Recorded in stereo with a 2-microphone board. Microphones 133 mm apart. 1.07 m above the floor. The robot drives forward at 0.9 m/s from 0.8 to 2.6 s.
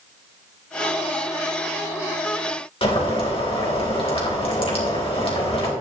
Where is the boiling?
45° left (ahead or behind), 3 m.